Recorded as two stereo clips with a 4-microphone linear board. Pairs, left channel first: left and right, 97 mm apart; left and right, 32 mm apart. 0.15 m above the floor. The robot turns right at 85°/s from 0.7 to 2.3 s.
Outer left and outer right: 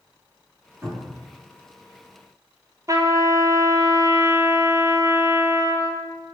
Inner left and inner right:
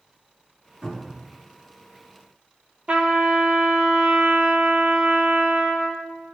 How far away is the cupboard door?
About 2.0 m.